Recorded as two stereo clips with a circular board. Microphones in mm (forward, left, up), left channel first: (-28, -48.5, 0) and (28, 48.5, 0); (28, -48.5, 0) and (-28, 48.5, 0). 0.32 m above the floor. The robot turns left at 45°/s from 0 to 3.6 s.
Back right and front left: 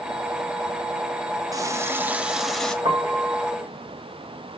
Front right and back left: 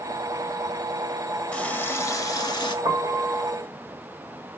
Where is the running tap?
20° left, 1.1 m; by 2.8 s 35° right, 1.1 m.